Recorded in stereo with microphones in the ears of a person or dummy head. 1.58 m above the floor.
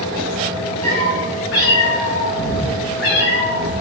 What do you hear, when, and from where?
0.8 s a cat meowing: 65° left (ahead or behind), 5.5 m